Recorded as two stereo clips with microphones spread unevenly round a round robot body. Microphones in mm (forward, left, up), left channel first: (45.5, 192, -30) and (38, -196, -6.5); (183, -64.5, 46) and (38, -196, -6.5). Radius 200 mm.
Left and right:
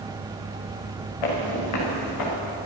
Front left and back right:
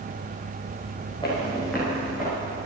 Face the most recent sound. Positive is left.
turn(degrees=135)